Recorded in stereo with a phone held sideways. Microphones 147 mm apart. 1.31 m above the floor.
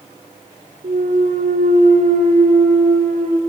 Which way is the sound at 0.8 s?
65° right (ahead or behind).